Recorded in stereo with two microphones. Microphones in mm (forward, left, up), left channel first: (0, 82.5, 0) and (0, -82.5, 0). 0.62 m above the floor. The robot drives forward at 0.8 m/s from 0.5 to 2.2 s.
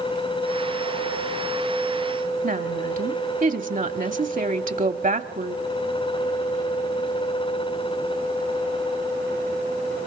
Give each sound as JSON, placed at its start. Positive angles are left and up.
{"t": 2.4, "sound": "a woman speaking", "side_deg": -60, "distance_m": 1.1}